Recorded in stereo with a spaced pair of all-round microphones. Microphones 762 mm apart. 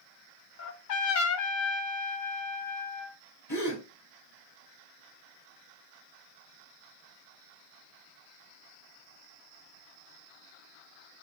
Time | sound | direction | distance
0.6 | a trumpet | 75° left (ahead or behind) | 0.9 m
3.5 | a gasp | 30° left (ahead or behind) | 3 m